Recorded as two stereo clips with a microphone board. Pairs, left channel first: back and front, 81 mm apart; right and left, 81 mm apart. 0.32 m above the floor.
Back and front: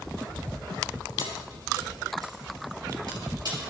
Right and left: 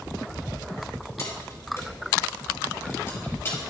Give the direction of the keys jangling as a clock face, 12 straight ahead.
1 o'clock.